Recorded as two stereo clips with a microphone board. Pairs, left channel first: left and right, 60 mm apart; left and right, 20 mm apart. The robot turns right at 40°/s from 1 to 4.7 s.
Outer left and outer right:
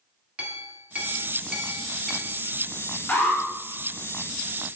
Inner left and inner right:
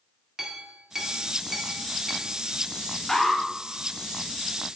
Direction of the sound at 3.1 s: 30° left (ahead or behind).